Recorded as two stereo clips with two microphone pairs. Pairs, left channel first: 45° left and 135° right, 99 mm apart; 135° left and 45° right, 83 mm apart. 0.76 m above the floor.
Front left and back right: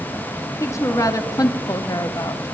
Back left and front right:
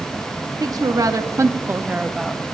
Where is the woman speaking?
10° right, 1.3 m; by 2.5 s 70° left, 0.6 m.